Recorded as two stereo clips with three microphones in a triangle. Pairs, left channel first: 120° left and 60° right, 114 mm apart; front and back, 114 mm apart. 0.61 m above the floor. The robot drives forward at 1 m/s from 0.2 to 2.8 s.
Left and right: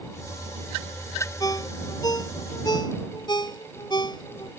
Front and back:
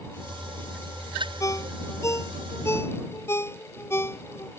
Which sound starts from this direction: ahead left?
A ringtone, at 1.4 s.